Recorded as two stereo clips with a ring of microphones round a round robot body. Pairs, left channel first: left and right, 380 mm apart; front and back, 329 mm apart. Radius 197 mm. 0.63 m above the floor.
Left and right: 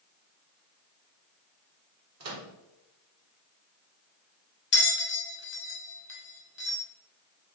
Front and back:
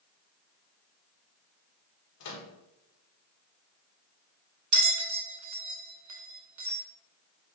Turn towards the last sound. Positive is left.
turn(degrees=150)